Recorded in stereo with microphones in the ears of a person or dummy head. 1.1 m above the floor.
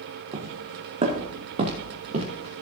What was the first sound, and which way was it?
Footsteps, 30° right (ahead or behind).